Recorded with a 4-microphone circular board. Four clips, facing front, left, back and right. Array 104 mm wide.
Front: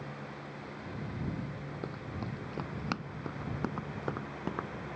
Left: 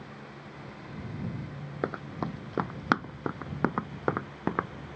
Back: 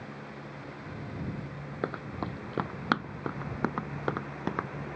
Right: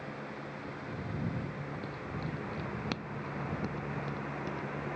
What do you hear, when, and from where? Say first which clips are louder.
1.8 s running footsteps: left 6 dB, back 8 dB; 120° left; by 4.7 s 105° left